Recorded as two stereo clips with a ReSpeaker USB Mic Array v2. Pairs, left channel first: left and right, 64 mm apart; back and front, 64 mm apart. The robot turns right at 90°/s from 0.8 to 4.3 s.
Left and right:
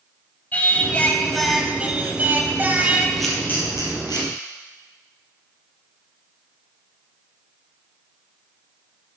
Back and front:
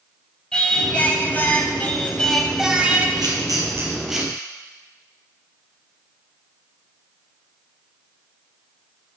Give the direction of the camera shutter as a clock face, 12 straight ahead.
12 o'clock.